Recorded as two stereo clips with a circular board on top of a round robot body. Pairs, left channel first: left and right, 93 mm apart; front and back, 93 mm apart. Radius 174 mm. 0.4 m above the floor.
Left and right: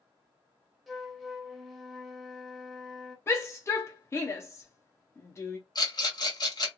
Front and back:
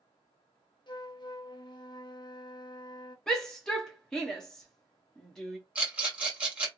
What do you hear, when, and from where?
0.9 s a flute: straight ahead, 0.9 m
3.3 s a shout: 75° left, 0.9 m
5.8 s a rattle: 110° left, 1.8 m